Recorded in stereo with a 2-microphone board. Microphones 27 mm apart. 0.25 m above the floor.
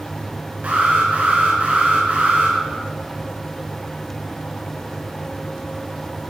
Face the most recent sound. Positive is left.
turn(degrees=-65)  # may be behind; listen again after turning